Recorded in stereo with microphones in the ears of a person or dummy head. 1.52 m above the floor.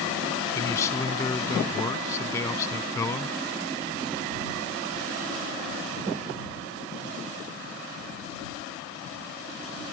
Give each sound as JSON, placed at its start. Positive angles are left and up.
{"t": 0.5, "sound": "a man speaking", "side_deg": 15}